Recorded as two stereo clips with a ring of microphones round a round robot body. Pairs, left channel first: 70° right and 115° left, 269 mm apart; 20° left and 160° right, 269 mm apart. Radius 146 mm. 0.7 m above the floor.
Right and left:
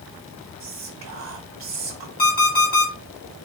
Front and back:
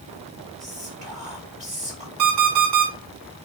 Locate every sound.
0.6 s whispering: 140° left, 1.1 m
2.2 s an alarm clock: 125° right, 2 m